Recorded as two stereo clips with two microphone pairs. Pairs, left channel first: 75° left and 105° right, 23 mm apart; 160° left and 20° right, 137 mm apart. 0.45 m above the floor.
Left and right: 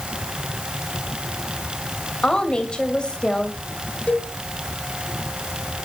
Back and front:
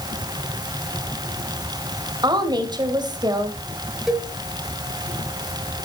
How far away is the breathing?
I don't hear breathing.